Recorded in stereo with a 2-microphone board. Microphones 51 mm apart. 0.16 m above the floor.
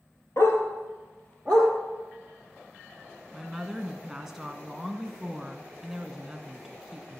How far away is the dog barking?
About 1.7 m.